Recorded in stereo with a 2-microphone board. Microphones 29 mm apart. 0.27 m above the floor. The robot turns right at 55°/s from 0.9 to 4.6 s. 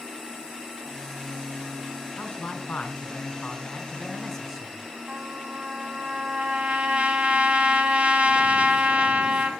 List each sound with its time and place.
2.2 s a man speaking: 55° left, 3 m; by 4.8 s 170° right, 3 m
5.1 s a trumpet: 45° right (ahead or behind), 1.9 m